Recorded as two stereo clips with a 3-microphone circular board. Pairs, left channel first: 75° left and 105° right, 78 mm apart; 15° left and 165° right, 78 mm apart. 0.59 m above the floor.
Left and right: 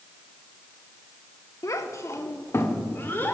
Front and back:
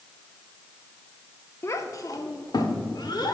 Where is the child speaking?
50° left, 0.7 m; by 3.3 s 15° left, 1.4 m.